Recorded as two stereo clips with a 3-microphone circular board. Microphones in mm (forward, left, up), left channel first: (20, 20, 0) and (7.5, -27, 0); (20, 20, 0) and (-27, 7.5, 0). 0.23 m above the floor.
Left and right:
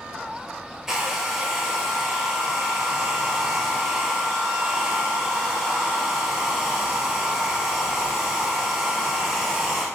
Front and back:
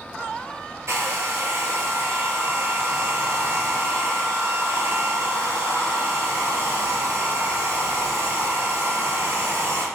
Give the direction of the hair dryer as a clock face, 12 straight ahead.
6 o'clock.